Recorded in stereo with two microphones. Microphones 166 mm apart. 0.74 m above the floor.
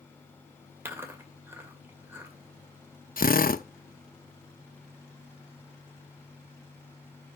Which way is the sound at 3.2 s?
65° left (ahead or behind).